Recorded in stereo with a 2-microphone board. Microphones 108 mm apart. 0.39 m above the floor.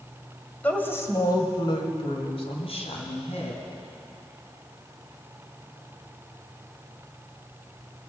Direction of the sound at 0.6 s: 15° left (ahead or behind).